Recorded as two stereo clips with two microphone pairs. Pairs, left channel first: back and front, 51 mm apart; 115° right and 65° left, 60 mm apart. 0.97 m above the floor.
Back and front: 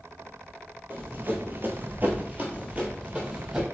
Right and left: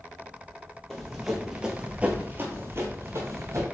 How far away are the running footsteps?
About 1.4 m.